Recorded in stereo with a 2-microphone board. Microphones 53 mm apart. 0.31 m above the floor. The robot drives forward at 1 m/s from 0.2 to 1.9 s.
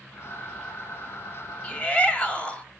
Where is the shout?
20° left (ahead or behind), 1.8 m.